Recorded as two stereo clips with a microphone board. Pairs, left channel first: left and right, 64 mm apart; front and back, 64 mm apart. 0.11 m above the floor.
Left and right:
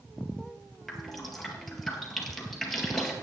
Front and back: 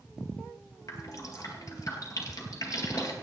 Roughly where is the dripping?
Ahead.